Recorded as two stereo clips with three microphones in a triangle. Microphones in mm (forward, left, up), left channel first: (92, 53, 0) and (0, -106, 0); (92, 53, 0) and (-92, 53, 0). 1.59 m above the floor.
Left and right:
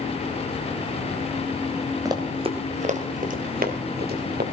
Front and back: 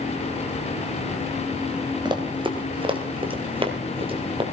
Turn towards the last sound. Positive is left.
turn(degrees=-125)